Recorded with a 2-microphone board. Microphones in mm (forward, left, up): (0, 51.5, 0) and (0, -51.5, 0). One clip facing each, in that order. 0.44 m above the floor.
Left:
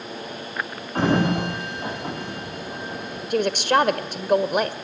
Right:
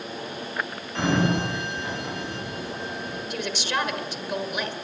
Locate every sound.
0.9 s a sliding door: 45° left (ahead or behind), 9 m
3.3 s a woman speaking: 55° left (ahead or behind), 1.6 m